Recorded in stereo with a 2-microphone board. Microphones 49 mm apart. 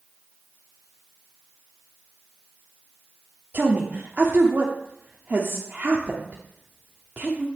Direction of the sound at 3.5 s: 40° right (ahead or behind).